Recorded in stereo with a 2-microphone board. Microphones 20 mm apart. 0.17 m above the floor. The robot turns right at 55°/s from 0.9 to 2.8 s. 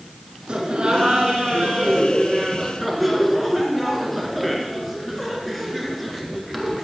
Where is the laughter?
100° right, 2.5 m; by 6.8 s 5° left, 2.5 m.